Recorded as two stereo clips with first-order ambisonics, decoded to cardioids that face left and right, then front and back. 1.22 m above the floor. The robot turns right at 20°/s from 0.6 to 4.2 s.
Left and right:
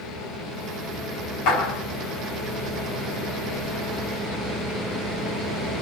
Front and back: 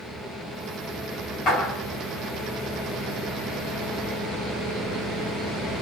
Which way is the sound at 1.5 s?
65° left.